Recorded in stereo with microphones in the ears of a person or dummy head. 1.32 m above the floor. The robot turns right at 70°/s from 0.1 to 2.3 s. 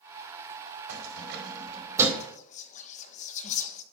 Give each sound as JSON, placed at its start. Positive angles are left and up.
{"t": 0.9, "sound": "keys jangling", "side_deg": -75, "distance_m": 2.0}
{"t": 2.2, "sound": "whispering", "side_deg": 35, "distance_m": 1.0}